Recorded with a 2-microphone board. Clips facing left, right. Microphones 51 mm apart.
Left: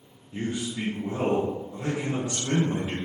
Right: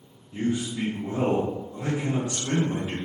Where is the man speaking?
20° left (ahead or behind), 0.7 m.